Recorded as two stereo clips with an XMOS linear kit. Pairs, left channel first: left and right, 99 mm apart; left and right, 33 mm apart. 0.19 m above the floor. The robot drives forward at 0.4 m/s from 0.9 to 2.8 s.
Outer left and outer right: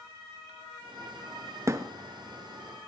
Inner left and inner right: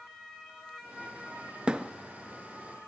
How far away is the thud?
About 1.2 m.